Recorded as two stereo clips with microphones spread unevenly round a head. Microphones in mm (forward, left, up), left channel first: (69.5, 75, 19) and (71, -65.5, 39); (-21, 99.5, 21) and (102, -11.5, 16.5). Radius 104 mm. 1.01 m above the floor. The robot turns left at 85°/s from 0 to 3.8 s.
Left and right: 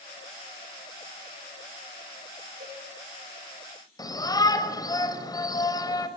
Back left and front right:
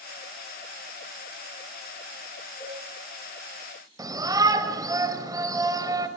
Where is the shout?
25° left, 4.5 m.